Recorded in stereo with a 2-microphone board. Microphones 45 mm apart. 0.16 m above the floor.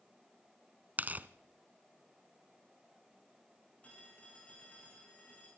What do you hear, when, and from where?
1.0 s tearing paper: 40° right (ahead or behind), 0.8 m
3.8 s a phone ringing: 30° left (ahead or behind), 8 m